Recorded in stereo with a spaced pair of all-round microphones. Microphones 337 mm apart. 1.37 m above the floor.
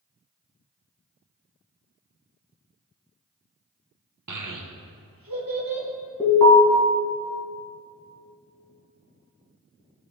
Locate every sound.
4.3 s a child speaking: 55° right (ahead or behind), 0.7 m; by 5.9 s 85° right, 1.8 m
6.2 s an alarm: 15° left (ahead or behind), 2.5 m